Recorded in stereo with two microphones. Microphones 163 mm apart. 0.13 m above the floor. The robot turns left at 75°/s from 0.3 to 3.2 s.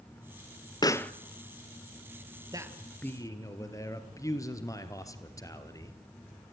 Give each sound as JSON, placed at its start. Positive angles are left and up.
{"t": 0.8, "sound": "a pop", "side_deg": 25, "distance_m": 0.7}
{"t": 2.5, "sound": "a man speaking", "azimuth_deg": -150, "distance_m": 2.5}